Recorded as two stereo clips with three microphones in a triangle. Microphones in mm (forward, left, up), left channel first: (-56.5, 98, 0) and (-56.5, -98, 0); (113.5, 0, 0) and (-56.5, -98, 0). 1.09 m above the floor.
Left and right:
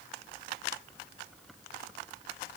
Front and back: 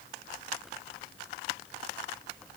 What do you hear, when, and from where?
Only background noise.